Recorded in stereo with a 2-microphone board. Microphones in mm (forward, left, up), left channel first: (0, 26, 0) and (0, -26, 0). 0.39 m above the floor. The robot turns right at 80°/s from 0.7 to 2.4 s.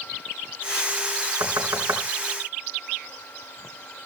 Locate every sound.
1.4 s knocking: 70° right (ahead or behind), 3.5 m; by 2.0 s 55° right (ahead or behind), 3.5 m